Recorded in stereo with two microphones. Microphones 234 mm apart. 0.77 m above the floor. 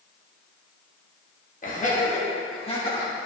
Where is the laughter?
35° left (ahead or behind), 1.2 m; by 3.1 s 20° left (ahead or behind), 1.9 m.